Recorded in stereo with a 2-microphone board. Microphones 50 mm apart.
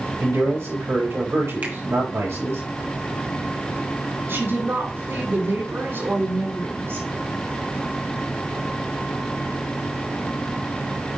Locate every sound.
0.2 s a man speaking: 75° right (ahead or behind), 6 m
1.6 s a finger snap: 35° right (ahead or behind), 2 m
4.3 s a woman speaking: 60° right (ahead or behind), 5.5 m